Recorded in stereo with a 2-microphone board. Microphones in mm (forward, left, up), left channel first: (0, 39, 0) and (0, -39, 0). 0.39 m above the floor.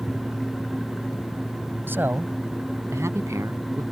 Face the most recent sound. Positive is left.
turn(degrees=-40)  # may be behind; listen again after turning